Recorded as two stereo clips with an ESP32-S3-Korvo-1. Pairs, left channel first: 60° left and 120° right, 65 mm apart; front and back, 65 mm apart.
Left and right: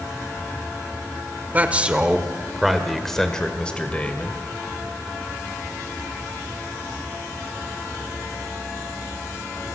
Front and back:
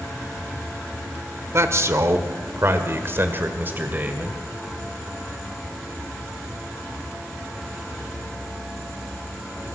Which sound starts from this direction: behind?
A man speaking, at 1.5 s.